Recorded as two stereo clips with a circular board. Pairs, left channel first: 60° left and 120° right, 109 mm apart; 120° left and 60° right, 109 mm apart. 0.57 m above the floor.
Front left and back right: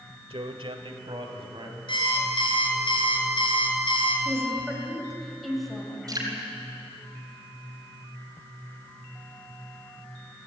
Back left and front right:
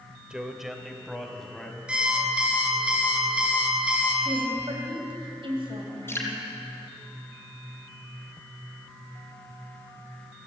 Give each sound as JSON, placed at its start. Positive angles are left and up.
{"t": 0.3, "sound": "a man speaking", "azimuth_deg": -140, "distance_m": 1.6}
{"t": 1.9, "sound": "an alarm clock", "azimuth_deg": 20, "distance_m": 3.5}
{"t": 4.2, "sound": "a woman speaking", "azimuth_deg": -30, "distance_m": 3.0}
{"t": 6.1, "sound": "dripping", "azimuth_deg": -170, "distance_m": 3.5}